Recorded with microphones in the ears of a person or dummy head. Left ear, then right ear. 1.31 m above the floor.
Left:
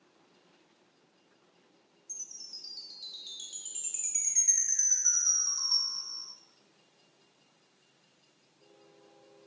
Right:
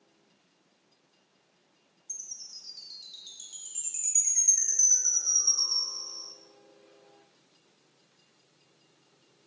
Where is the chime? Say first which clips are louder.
Right 2 dB; 15° left (ahead or behind), 0.5 m.